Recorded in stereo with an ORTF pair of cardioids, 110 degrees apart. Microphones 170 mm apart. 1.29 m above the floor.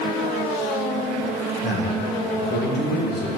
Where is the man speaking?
65° left, 2 m.